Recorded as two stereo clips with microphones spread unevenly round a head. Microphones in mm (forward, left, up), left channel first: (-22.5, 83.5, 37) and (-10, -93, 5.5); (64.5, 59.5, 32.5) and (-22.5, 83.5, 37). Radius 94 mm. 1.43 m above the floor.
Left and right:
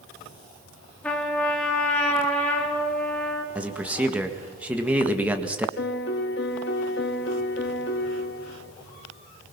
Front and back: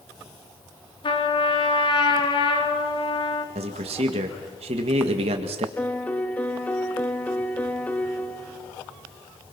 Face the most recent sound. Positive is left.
turn(degrees=60)